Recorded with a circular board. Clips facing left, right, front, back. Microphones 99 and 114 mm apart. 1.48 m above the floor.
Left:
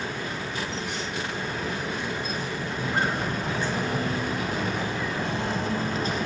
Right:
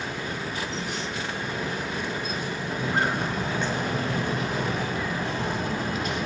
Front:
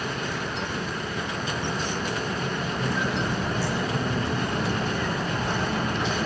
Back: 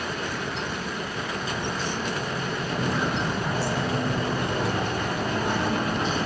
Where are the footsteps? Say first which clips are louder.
Right 1 dB, back 3 dB; 175° right, 5.5 m; by 6.2 s 130° left, 3 m.